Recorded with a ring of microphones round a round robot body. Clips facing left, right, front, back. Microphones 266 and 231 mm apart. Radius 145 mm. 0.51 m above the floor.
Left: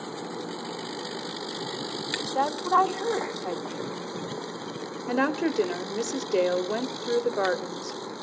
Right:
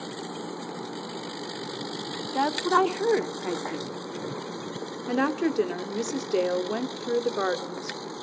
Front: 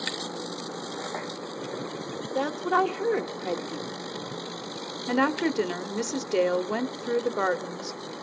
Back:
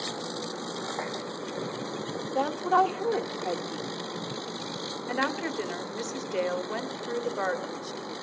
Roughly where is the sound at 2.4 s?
Ahead right.